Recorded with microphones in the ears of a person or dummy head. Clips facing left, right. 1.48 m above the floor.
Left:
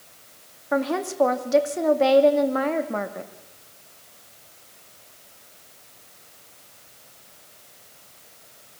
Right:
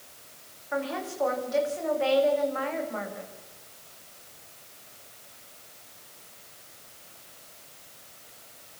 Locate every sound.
0.7 s a woman speaking: 55° left (ahead or behind), 2.5 m